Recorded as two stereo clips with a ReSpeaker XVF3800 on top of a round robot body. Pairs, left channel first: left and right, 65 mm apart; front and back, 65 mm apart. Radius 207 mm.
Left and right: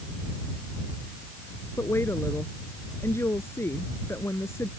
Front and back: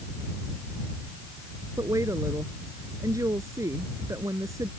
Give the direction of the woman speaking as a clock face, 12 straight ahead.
7 o'clock.